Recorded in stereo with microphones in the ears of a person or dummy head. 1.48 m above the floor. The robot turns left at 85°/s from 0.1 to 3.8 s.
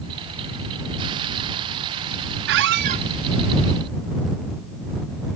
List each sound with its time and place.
2.5 s a squeak: 95° right; by 3.1 s 145° right